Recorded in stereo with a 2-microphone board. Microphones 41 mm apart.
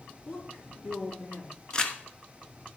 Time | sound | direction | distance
0.2 | a woman speaking | 40° left (ahead or behind) | 5 m
1.7 | crumpling | 20° left (ahead or behind) | 1.0 m